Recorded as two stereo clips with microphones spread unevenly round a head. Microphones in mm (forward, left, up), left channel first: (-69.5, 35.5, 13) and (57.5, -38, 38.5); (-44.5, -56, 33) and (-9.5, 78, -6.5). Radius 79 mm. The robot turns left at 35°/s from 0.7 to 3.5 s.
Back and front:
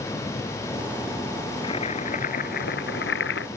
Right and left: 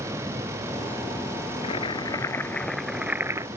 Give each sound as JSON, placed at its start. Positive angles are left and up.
{"t": 1.6, "sound": "boiling", "azimuth_deg": -150}